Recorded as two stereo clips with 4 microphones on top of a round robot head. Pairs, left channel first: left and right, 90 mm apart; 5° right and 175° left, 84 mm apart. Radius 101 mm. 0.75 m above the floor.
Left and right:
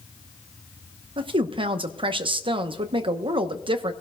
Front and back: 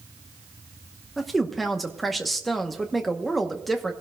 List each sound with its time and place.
1.2 s a woman speaking: 90° right, 1.0 m